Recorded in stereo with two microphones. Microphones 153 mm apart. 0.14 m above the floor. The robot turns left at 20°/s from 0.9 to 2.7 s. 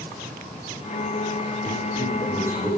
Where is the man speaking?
Centre (ahead or behind), 7 m; by 2.7 s 20° right (ahead or behind), 7 m.